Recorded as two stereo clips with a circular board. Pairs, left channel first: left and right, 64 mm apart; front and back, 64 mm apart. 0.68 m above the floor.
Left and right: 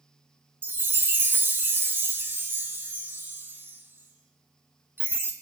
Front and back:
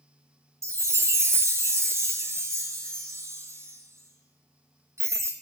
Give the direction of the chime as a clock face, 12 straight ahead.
5 o'clock.